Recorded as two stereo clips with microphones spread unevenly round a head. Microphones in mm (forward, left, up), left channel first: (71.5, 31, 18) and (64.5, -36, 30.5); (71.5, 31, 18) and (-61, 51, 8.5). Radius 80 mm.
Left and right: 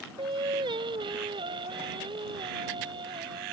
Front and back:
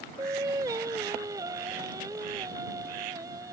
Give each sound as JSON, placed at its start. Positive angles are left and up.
{"t": 0.2, "sound": "singing", "azimuth_deg": -115}